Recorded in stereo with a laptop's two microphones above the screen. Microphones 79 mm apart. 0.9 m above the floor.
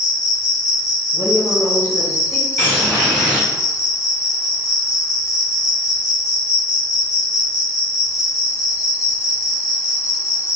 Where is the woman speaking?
30° left (ahead or behind), 0.9 m.